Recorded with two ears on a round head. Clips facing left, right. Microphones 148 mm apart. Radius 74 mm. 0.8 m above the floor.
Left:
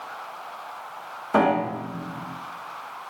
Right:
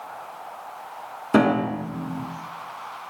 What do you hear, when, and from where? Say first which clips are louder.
1.3 s a piano: right 2 dB; 30° right (ahead or behind), 1.2 m